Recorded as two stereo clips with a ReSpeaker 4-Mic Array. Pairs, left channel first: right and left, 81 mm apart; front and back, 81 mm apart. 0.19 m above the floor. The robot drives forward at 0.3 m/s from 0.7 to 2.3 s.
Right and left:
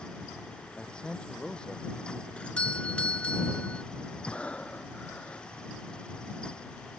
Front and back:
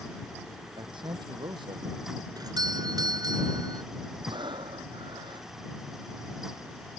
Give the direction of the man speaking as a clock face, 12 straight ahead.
6 o'clock.